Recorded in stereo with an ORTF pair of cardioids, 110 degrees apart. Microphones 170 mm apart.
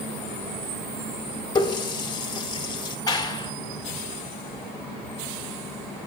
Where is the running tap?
25° left, 2 m.